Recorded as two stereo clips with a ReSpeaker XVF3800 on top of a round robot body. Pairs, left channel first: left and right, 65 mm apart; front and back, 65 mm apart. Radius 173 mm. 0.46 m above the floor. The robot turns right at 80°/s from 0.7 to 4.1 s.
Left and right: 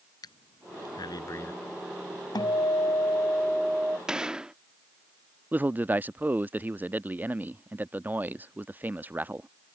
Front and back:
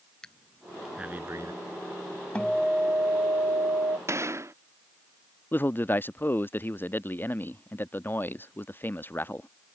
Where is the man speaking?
40° right.